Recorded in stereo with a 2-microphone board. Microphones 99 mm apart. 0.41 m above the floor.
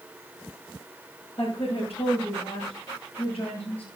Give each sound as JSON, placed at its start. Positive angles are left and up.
{"t": 1.4, "sound": "a woman speaking", "side_deg": 70, "distance_m": 8.5}